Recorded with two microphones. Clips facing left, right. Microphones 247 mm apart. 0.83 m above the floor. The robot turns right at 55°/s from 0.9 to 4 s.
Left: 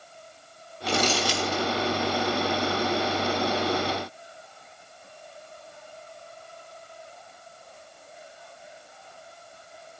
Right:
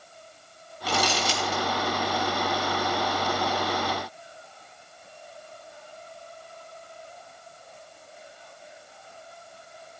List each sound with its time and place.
0.9 s crumpling: 5° right (ahead or behind), 4 m; by 1.6 s 45° right (ahead or behind), 4 m